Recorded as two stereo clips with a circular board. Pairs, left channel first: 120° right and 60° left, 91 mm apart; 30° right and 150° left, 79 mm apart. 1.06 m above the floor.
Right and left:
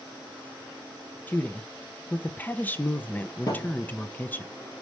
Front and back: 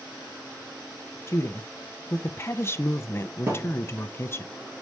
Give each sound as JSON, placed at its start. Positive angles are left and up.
{"t": 1.3, "sound": "a woman speaking", "azimuth_deg": -60, "distance_m": 0.7}
{"t": 3.5, "sound": "a thud", "azimuth_deg": -160, "distance_m": 2.0}